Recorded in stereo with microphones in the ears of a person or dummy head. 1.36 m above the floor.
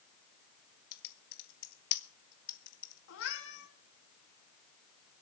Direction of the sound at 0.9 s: 50° left (ahead or behind).